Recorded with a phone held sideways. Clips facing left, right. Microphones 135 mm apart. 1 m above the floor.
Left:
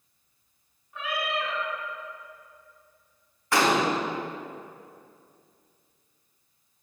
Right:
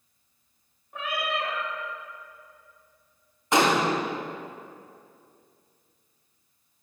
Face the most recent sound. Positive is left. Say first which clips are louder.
# right 1 dB
turn(degrees=-20)  # may be behind; listen again after turning